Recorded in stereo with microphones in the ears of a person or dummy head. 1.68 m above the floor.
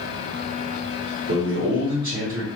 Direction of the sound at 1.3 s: 55° right (ahead or behind).